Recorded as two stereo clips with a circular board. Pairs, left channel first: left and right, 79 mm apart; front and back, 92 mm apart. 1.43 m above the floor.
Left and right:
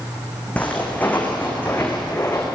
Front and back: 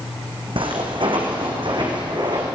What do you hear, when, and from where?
0.6 s footsteps: 165° left, 4.5 m; by 2.5 s 150° left, 5.5 m